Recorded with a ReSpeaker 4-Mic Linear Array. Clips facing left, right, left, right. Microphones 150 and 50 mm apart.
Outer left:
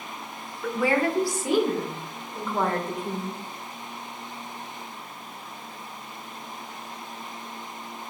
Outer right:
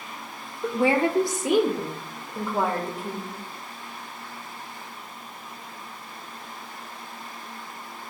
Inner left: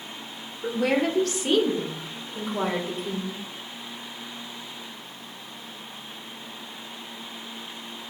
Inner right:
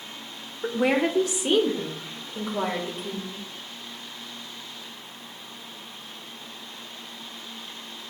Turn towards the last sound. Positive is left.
turn(degrees=-5)  # may be behind; listen again after turning